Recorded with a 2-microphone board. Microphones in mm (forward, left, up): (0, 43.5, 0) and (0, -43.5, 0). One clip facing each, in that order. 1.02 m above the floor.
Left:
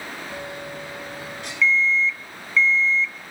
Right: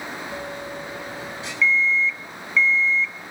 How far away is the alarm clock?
About 0.6 m.